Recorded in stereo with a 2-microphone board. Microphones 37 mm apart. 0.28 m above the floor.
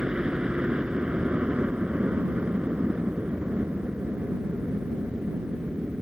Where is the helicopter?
25° right (ahead or behind); by 6.0 s 55° right (ahead or behind).